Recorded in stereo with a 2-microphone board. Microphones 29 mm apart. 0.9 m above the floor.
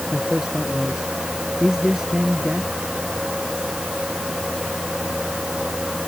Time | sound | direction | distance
0.1 | a man speaking | 15° right (ahead or behind) | ?